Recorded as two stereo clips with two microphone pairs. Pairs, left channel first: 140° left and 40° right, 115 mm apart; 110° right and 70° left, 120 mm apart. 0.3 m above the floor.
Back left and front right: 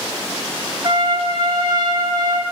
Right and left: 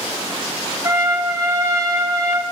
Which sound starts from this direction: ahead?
A trumpet, at 0.8 s.